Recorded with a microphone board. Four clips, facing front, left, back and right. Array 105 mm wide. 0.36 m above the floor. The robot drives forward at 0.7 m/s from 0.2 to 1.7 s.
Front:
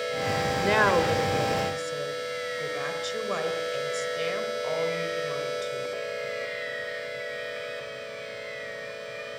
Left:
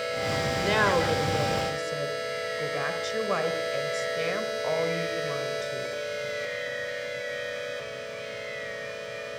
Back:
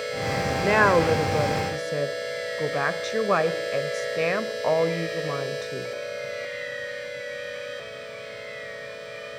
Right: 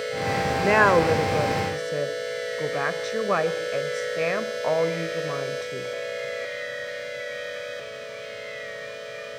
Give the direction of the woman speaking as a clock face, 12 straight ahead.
3 o'clock.